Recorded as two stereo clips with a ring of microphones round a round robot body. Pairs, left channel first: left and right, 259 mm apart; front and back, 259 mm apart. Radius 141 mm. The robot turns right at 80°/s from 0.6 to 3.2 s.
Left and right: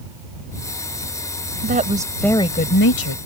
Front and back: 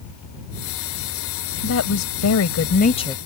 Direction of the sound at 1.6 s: 45° right.